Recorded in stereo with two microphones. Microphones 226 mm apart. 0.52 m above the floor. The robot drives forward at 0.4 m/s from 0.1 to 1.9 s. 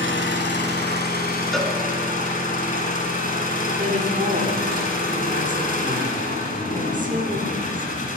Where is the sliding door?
No sliding door in this recording.